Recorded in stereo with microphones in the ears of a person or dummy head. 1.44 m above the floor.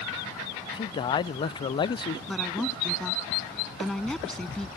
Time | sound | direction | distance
0.7 | a man speaking | 20° left (ahead or behind) | ?
2.3 | a woman speaking | 10° left (ahead or behind) | ?